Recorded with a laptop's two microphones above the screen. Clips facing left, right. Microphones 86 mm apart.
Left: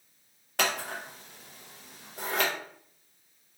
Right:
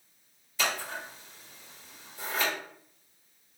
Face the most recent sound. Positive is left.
turn(degrees=60)  # may be behind; listen again after turning